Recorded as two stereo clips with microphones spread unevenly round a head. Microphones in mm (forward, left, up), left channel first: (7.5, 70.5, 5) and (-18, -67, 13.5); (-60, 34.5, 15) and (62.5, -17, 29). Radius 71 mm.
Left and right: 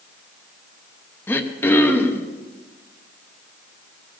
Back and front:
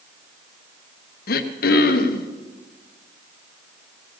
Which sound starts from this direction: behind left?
Throat clearing, at 1.3 s.